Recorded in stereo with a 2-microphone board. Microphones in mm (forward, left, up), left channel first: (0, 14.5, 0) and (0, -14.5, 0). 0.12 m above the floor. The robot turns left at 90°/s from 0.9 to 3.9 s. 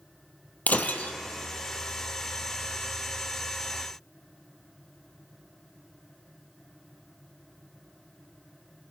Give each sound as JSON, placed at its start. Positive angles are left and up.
{"t": 0.7, "sound": "breaking glass", "side_deg": 75, "distance_m": 0.9}